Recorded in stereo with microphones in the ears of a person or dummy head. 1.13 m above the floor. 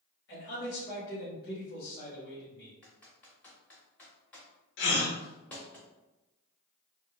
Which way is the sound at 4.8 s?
60° left (ahead or behind).